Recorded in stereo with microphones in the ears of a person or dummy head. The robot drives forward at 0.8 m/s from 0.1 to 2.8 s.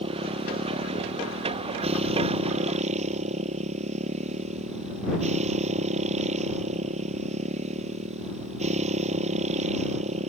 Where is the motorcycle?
35° right (ahead or behind).